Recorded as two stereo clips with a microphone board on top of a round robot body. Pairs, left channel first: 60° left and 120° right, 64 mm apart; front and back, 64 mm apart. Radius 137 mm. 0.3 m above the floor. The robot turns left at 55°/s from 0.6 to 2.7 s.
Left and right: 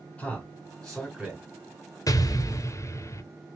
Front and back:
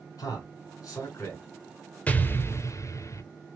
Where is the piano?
I don't hear a piano.